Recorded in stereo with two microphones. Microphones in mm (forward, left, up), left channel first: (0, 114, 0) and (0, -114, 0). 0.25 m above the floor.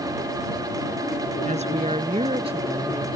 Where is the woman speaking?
30° right (ahead or behind); by 3.1 s 25° right (ahead or behind).